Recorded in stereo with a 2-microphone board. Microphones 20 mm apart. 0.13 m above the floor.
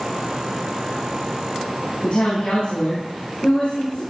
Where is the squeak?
No squeak in this recording.